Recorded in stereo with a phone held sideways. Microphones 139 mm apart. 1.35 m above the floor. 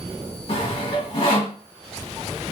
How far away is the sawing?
About 1.4 m.